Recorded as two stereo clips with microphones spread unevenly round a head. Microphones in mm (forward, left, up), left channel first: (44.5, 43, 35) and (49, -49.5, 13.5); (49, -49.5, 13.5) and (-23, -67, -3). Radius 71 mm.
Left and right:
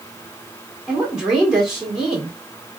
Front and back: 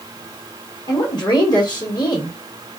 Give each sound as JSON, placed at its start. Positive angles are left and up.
{"t": 0.9, "sound": "a woman speaking", "azimuth_deg": -5, "distance_m": 1.7}